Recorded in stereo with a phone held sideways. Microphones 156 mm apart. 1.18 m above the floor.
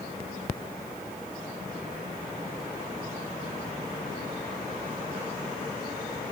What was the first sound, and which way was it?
Only background noise.